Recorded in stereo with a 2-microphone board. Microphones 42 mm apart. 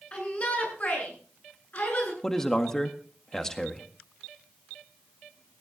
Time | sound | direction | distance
0.1 | a shout | 30° left (ahead or behind) | 8.5 m
2.2 | a man speaking | 10° left (ahead or behind) | 1.7 m